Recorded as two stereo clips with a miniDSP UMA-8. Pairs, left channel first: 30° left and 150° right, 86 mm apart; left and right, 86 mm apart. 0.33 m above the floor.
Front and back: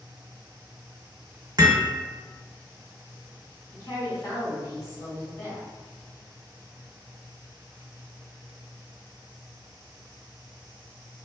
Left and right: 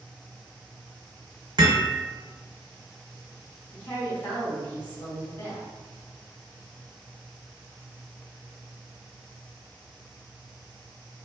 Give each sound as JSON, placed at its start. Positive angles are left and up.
{"t": 1.6, "sound": "hammering", "azimuth_deg": -110, "distance_m": 0.7}
{"t": 3.7, "sound": "a woman speaking", "azimuth_deg": 30, "distance_m": 1.7}